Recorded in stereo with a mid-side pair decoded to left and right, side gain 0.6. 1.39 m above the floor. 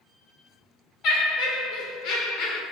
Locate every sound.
1.0 s laughter: 65° left, 1.1 m